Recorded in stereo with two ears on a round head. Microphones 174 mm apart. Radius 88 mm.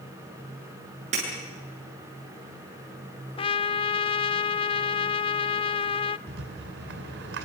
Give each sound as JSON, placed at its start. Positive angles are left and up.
{"t": 1.1, "sound": "breaking glass", "side_deg": -35, "distance_m": 8.0}
{"t": 3.4, "sound": "a trumpet", "side_deg": 30, "distance_m": 0.5}
{"t": 6.3, "sound": "a rattle", "side_deg": -70, "distance_m": 3.0}